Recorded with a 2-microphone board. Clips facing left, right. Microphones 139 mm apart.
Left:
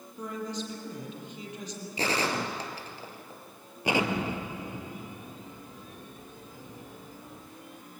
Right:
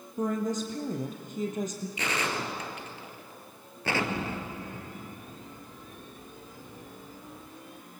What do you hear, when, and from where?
0.2 s a woman speaking: 45° right (ahead or behind), 3.5 m
2.0 s a gunshot: 35° left (ahead or behind), 2.5 m
3.9 s an explosion: 15° left (ahead or behind), 1.5 m